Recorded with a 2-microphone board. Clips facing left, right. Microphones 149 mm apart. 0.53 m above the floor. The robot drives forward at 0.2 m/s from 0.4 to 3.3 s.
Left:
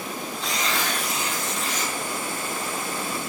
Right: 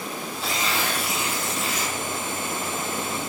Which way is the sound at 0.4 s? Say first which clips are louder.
Right 1 dB; 5° right (ahead or behind).